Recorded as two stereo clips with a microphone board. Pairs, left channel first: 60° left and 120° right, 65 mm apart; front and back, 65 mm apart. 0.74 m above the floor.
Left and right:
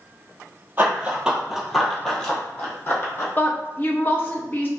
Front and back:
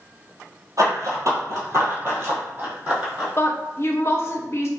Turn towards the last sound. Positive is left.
turn(degrees=15)